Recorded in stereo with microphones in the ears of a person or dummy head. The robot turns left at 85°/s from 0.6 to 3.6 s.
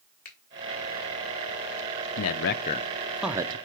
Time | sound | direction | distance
0.2 | a finger snap | 40° left (ahead or behind) | 1.2 m
2.2 | a man speaking | 85° left | 0.6 m